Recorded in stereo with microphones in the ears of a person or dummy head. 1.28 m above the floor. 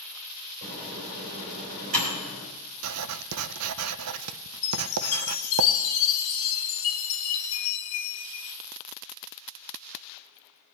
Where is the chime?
70° left (ahead or behind), 1.3 m.